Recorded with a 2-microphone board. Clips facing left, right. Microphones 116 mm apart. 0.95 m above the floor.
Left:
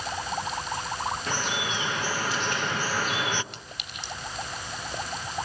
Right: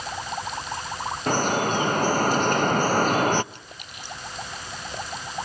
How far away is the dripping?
About 0.5 m.